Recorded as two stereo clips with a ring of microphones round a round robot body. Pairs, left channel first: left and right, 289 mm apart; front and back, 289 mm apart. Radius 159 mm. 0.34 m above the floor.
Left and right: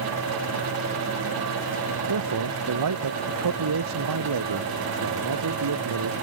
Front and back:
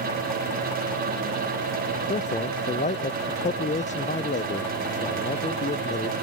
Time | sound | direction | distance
2.1 | a man speaking | 65° right | ?